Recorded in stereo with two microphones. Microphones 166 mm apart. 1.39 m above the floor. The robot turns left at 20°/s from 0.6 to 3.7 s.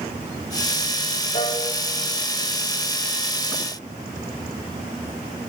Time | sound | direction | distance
1.3 | a piano | 50° left (ahead or behind) | 2.5 m